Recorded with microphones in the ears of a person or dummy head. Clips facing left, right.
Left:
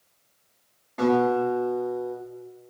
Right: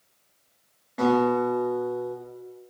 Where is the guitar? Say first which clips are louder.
Even; 10° right (ahead or behind), 1.5 m.